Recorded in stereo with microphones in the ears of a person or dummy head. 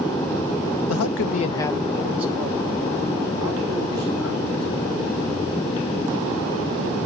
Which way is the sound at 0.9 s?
80° left.